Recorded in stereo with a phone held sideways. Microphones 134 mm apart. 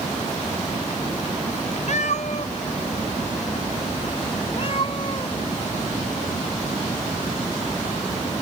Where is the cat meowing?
60° left (ahead or behind); by 5.3 s 45° left (ahead or behind).